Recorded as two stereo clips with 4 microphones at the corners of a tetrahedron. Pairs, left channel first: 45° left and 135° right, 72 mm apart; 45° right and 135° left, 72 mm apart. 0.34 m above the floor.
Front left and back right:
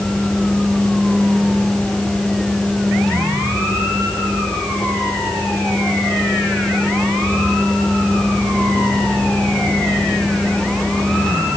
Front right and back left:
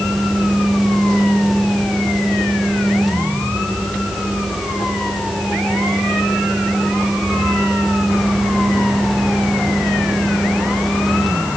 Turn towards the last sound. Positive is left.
No sound to turn to.